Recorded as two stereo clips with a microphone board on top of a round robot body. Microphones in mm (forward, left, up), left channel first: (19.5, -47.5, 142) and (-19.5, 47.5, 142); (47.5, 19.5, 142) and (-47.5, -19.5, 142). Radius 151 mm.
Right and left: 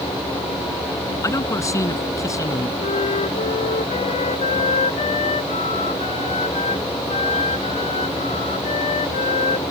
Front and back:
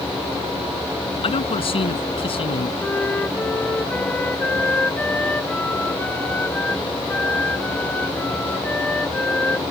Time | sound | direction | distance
1.2 | a man speaking | 10° right | ?
2.8 | a flute | 55° right | ?